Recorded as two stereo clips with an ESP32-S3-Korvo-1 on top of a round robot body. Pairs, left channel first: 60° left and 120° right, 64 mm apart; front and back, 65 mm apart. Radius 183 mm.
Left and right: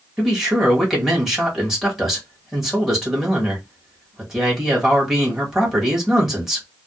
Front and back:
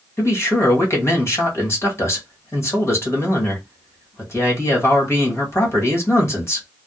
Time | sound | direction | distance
0.2 | a man speaking | 35° right | 1.7 m